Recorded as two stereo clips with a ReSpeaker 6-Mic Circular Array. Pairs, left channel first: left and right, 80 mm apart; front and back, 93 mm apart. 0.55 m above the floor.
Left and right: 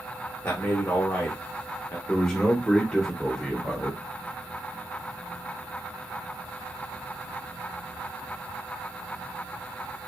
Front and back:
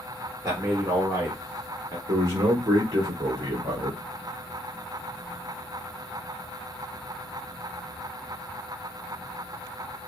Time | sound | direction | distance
0.4 | a man speaking | 145° left | 1.5 m
2.1 | a man speaking | 165° left | 1.8 m